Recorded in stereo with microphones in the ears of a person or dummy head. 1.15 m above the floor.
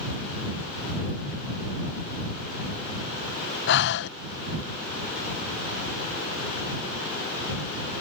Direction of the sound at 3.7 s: 55° left (ahead or behind).